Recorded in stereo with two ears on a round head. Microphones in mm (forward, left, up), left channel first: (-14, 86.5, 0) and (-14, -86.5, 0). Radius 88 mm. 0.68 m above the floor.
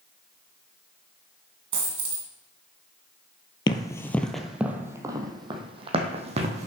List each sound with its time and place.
1.7 s a dropped coin: 30° right (ahead or behind), 1.8 m
3.7 s running footsteps: 25° left (ahead or behind), 0.9 m; by 6.7 s 40° right (ahead or behind), 1.9 m